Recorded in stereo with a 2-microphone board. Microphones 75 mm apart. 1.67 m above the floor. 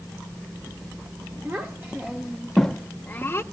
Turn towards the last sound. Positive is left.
turn(degrees=30)  # may be behind; listen again after turning